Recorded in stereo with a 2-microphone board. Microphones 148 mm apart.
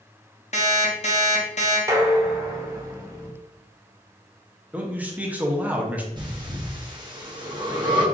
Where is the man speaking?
10° right (ahead or behind), 0.7 m.